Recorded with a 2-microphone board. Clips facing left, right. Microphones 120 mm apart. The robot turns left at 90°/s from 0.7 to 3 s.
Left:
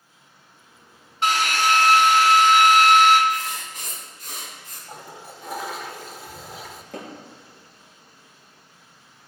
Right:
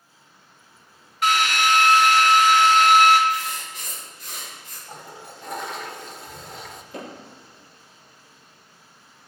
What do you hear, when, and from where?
1.2 s a drill: 150° left, 2 m; by 3.2 s 10° right, 2 m
3.3 s writing: 45° left (ahead or behind), 4 m
4.9 s a toilet flushing: 5° left (ahead or behind), 0.6 m
6.9 s hammering: 80° left, 4.5 m